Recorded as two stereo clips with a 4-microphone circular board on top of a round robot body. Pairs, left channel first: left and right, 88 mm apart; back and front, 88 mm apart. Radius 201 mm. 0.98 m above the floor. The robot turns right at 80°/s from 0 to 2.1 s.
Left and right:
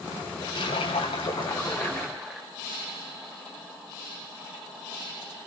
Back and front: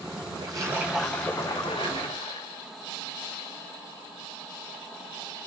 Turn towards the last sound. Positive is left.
turn(degrees=175)